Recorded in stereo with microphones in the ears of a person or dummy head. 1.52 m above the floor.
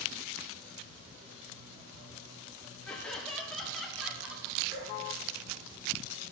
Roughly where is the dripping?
Right.